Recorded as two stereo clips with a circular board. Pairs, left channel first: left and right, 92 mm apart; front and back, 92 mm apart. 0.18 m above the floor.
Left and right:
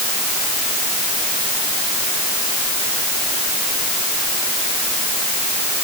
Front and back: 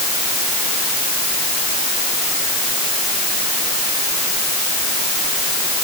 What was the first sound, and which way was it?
Only background noise.